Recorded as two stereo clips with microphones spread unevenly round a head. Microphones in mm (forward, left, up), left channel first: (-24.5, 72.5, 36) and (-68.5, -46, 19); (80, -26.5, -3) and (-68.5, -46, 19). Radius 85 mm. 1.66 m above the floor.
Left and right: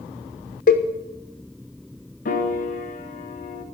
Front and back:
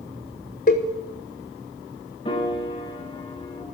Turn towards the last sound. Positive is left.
turn(degrees=75)